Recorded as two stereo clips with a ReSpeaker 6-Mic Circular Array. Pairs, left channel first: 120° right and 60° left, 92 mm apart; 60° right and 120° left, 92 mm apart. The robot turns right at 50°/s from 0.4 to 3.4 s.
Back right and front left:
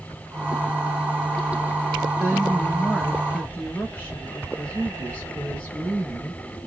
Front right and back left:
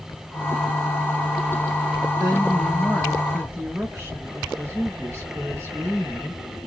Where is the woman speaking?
110° left, 2 m; by 6.6 s 170° left, 2 m.